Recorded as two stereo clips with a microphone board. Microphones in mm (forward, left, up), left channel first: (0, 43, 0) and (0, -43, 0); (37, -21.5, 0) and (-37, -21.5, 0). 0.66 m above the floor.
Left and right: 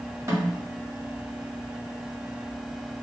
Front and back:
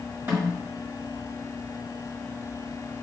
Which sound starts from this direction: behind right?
A snare drum, at 0.3 s.